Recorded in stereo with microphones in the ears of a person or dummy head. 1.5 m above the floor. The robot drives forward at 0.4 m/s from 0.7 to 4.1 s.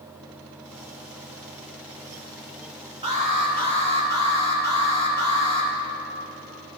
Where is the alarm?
30° right (ahead or behind), 0.9 m; by 5.7 s 20° right (ahead or behind), 1.3 m.